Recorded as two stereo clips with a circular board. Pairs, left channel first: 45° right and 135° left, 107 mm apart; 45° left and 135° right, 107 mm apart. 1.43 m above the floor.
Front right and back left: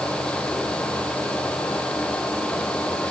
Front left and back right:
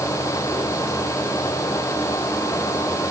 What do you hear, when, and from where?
Only background noise.